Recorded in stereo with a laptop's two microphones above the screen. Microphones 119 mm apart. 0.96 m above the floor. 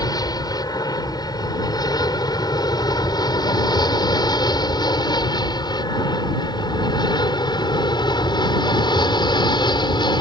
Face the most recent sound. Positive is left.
turn(degrees=40)  # may be behind; listen again after turning